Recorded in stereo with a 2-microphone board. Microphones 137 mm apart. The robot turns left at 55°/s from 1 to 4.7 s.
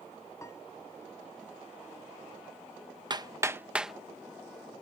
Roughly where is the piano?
Left.